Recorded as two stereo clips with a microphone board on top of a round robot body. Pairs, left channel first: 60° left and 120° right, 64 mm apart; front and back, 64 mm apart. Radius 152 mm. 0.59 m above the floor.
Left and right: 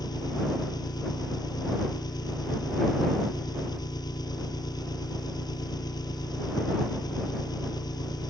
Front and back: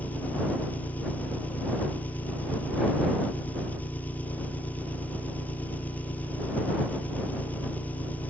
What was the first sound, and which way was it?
An engine running, 65° left.